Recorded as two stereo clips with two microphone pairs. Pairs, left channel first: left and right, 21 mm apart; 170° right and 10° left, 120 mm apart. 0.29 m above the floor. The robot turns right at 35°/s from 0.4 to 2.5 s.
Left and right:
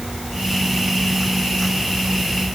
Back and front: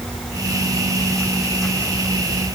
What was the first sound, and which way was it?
Only background noise.